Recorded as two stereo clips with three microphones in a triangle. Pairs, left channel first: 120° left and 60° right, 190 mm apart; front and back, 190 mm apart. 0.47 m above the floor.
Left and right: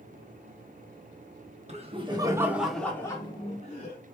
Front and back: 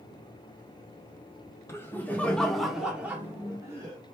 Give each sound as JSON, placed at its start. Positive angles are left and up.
{"t": 1.7, "sound": "laughter", "azimuth_deg": -70, "distance_m": 0.9}